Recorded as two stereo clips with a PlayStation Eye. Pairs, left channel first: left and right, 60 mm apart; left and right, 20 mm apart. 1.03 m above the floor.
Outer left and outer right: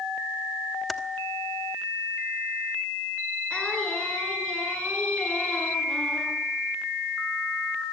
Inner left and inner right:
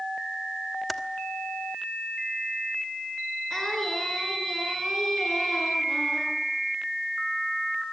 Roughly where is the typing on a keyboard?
Centre.